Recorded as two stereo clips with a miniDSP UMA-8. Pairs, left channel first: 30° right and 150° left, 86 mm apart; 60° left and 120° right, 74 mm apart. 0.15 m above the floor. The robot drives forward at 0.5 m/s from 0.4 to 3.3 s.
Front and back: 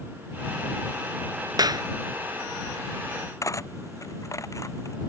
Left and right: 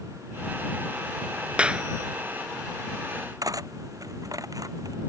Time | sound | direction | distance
1.6 | a clap | 170° left | ?
3.4 | cutlery clinking | 80° right | ?